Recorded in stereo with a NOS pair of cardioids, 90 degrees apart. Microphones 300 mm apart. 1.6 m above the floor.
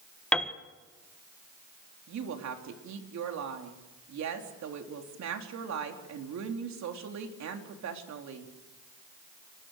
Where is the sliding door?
No sliding door in this recording.